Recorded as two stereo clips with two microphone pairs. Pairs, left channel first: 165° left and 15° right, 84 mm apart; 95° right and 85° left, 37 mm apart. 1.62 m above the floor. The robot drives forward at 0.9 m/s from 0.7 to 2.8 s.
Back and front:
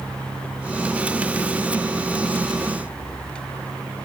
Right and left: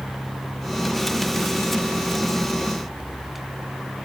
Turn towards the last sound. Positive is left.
No sound to turn to.